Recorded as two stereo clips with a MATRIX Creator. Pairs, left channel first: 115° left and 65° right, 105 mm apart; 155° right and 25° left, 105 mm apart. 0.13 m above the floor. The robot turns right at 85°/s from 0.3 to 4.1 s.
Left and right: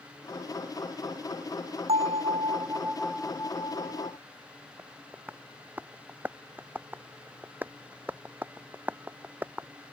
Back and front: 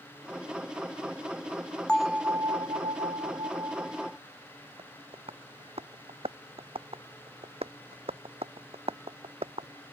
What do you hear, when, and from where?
1.9 s a bell: 80° right; by 4.2 s 110° left
4.8 s tapping: 5° left